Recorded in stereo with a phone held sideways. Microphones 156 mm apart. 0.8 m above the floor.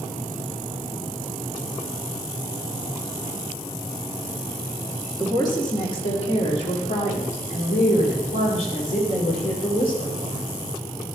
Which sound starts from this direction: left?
A woman speaking, at 5.2 s.